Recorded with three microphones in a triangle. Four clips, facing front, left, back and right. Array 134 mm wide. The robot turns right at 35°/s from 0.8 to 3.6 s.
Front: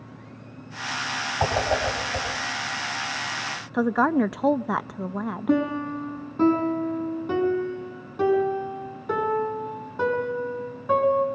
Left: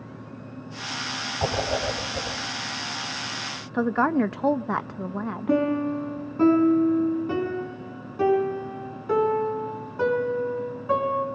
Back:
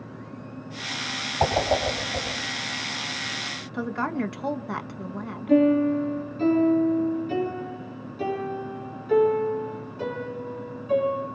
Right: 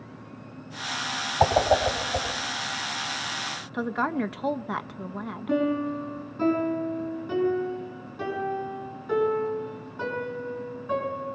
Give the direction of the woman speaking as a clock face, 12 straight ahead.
11 o'clock.